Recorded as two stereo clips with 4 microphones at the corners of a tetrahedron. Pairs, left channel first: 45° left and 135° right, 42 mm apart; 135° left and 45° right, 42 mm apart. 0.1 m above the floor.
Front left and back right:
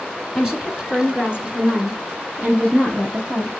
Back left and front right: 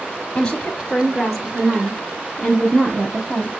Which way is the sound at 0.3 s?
165° left.